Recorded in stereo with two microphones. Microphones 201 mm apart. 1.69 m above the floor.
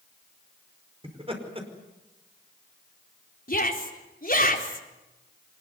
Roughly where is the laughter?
Right.